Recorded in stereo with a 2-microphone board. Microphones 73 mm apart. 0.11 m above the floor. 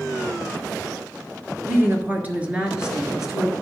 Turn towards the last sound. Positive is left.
turn(degrees=-5)  # may be behind; listen again after turning